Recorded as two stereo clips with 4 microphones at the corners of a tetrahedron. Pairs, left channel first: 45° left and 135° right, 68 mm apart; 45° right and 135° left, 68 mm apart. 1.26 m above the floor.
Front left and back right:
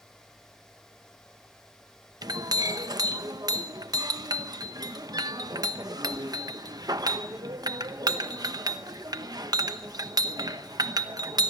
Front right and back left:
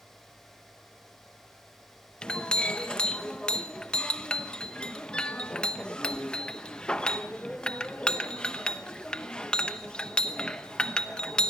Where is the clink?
120° right, 0.9 m.